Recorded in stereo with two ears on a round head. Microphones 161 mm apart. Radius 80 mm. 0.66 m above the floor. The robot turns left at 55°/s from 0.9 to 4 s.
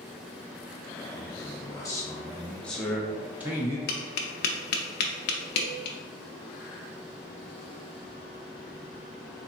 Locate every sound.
1.1 s a man speaking: 20° left (ahead or behind), 0.8 m; by 3.8 s 15° right (ahead or behind), 0.8 m
3.9 s tapping: 55° left (ahead or behind), 0.6 m; by 6.0 s 60° left (ahead or behind), 0.6 m